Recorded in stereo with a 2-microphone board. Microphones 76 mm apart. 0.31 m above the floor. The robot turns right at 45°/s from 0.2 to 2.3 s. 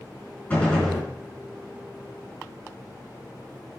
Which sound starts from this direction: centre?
A gunshot, at 0.5 s.